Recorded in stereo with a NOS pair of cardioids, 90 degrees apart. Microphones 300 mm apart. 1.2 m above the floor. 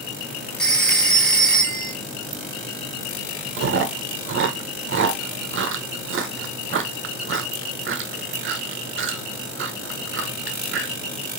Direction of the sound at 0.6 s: Straight ahead.